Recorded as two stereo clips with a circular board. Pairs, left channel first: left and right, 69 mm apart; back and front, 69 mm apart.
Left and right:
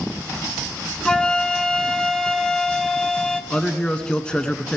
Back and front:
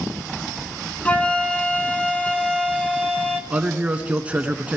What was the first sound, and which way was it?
A flute, 150° left.